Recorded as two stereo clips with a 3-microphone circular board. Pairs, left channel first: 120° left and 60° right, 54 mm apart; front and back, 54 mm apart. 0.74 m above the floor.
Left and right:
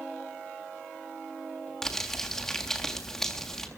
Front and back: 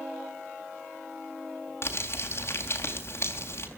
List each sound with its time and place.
1.8 s crumpling: 40° left, 3.5 m